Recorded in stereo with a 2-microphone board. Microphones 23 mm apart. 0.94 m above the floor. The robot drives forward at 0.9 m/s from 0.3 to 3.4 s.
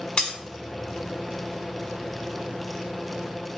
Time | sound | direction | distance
0.2 | breaking glass | 45° left (ahead or behind) | 2.5 m